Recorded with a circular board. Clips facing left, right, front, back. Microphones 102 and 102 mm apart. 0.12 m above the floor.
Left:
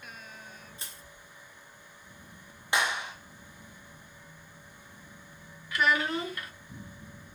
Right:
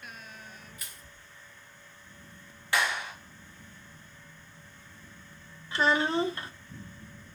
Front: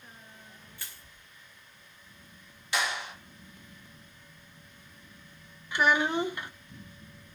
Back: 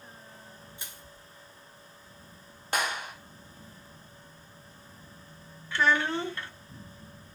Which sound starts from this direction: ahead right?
A child speaking, at 5.7 s.